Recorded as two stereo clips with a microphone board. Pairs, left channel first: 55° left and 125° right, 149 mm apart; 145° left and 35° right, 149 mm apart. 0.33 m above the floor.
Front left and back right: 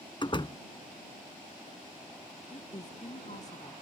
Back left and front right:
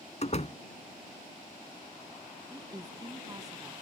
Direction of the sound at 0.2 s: 110° left.